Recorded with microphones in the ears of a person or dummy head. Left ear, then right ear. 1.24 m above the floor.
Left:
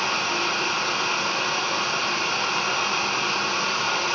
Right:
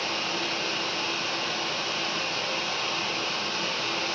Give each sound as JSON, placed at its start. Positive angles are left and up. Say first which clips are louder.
{"t": 0.0, "sound": "running water", "louder": "left 5 dB", "side_deg": 60, "distance_m": 5.5}